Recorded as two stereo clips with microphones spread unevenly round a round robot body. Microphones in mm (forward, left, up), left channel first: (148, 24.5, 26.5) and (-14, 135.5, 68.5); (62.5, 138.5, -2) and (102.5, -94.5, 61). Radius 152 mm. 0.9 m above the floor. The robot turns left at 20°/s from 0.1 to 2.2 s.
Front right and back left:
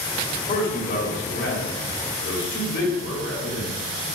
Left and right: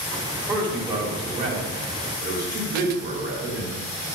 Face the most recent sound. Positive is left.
turn(degrees=-25)